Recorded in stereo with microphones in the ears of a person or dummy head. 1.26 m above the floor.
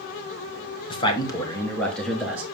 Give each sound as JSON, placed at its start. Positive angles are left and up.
{"t": 0.9, "sound": "a man speaking", "side_deg": 30, "distance_m": 1.3}